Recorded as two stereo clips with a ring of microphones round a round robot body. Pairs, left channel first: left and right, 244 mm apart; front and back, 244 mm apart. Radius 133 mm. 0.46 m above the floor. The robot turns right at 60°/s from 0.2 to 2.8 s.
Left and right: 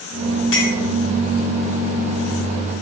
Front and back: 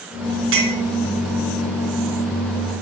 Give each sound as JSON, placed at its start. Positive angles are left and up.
{"t": 0.5, "sound": "a clink", "azimuth_deg": 140, "distance_m": 4.0}